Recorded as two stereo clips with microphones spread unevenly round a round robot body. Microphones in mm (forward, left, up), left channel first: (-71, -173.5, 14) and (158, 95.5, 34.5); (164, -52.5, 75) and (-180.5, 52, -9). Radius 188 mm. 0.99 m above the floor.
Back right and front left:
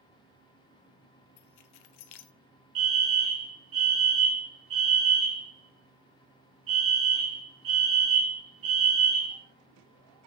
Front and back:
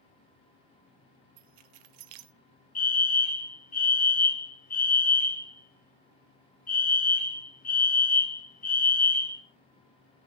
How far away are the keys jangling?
About 0.8 m.